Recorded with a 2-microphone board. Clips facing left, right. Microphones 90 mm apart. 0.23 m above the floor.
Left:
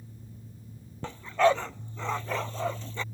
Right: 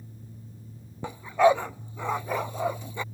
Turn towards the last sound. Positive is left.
turn(degrees=-15)  # may be behind; listen again after turning